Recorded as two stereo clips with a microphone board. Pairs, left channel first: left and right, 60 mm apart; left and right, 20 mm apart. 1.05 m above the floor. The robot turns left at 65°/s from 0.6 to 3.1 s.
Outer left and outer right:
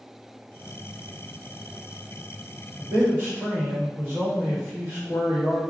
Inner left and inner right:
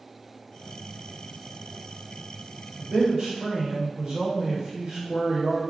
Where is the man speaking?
60° right (ahead or behind), 2.0 m; by 5.6 s 40° right (ahead or behind), 2.0 m.